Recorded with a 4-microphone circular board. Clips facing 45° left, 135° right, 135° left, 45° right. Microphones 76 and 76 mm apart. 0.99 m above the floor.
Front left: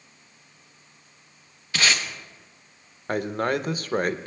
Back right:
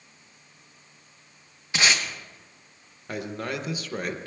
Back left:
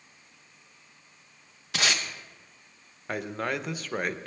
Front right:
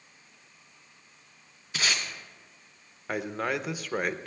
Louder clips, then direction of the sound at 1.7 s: Even, back left 2 dB; 155° left.